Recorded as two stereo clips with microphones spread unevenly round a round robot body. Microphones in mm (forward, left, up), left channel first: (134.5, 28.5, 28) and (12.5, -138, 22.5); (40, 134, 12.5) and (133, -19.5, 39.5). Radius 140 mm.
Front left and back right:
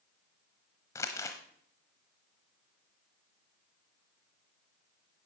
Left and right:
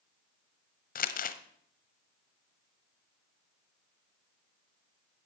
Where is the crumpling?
130° left, 0.9 m.